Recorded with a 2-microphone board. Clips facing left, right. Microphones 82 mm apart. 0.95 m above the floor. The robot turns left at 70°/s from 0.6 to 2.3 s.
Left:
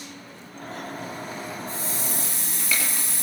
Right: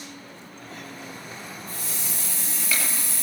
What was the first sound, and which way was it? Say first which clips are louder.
A hiss: left 5 dB; 155° left.